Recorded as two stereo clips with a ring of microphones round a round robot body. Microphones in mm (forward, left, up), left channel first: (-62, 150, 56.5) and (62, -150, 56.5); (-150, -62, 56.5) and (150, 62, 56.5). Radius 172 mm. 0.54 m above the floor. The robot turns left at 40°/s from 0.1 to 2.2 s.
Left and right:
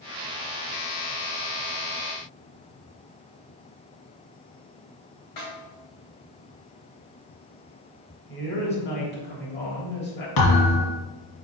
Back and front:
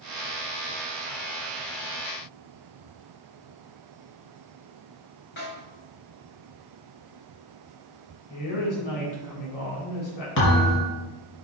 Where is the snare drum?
140° left, 3.5 m.